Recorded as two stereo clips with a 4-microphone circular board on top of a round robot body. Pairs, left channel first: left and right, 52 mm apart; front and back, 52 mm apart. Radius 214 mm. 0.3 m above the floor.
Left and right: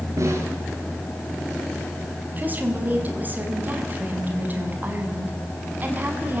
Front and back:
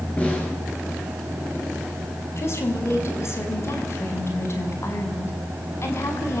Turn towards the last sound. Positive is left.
turn(degrees=-35)